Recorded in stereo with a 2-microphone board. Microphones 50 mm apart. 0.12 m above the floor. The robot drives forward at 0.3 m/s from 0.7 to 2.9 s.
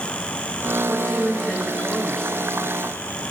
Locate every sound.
0.9 s a woman speaking: 20° left (ahead or behind), 1.1 m